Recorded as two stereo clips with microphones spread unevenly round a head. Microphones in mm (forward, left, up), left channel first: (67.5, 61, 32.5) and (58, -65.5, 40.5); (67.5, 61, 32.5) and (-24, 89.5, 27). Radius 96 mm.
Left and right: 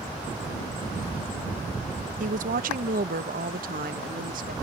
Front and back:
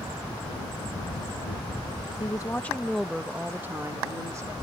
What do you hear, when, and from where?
2.2 s a woman speaking: 80° right; by 4.5 s 125° right